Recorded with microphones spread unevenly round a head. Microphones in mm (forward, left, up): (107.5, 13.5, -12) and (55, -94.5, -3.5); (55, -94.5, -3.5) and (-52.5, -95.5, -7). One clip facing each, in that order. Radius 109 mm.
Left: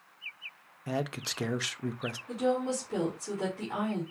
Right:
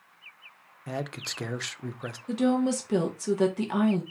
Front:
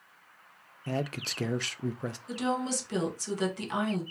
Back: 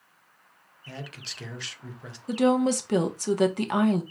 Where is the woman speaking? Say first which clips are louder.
Right 5 dB, back 10 dB; 150° right, 1.2 m.